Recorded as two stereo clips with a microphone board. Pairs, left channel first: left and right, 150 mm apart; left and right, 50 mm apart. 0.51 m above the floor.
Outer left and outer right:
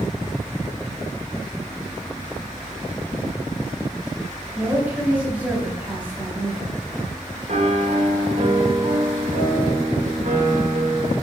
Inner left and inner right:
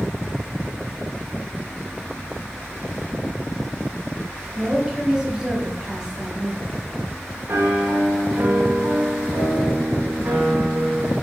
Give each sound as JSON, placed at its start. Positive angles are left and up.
{"t": 4.5, "sound": "a woman speaking", "side_deg": -10, "distance_m": 2.5}
{"t": 7.5, "sound": "a piano", "side_deg": -55, "distance_m": 1.6}